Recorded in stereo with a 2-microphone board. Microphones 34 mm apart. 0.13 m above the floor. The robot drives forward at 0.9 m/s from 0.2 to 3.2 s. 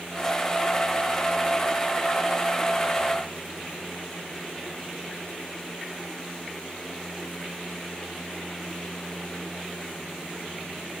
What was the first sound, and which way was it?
Only background noise.